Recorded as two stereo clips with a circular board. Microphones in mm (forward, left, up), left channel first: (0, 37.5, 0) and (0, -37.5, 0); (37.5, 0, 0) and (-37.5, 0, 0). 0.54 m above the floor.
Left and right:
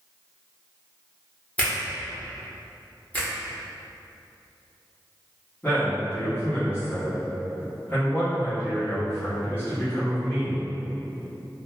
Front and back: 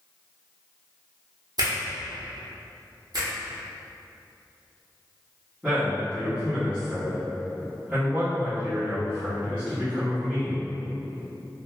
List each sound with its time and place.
1.6 s a finger snap: 160° left, 0.8 m
3.1 s a finger snap: 160° left, 0.9 m
5.6 s a man speaking: 125° left, 1.1 m